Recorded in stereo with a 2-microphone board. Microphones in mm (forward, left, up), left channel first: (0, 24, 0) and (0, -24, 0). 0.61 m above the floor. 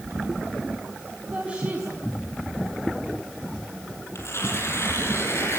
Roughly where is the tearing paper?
Left.